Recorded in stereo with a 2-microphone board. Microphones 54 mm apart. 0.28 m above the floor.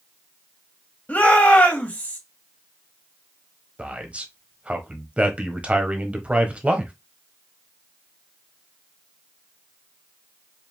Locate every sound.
1.1 s a shout: 30° left (ahead or behind), 1.6 m
3.8 s a man speaking: 25° right (ahead or behind), 1.1 m